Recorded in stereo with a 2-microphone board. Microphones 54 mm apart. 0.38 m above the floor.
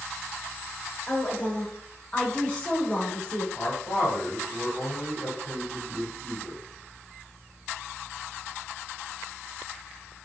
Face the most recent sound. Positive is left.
turn(degrees=25)  # may be behind; listen again after turning